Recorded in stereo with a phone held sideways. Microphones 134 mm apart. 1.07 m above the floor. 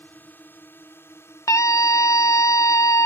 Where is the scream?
20° left (ahead or behind).